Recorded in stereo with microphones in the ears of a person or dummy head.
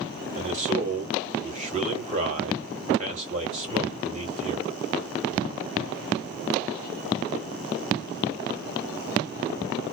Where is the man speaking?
30° right (ahead or behind), 1.1 m.